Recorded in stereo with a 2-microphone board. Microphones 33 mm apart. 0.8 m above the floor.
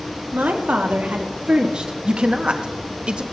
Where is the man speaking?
35° right (ahead or behind), 1.1 m.